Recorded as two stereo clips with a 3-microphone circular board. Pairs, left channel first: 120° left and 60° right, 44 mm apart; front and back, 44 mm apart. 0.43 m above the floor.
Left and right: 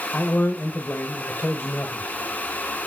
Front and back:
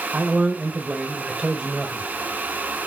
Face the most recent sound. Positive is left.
turn(degrees=100)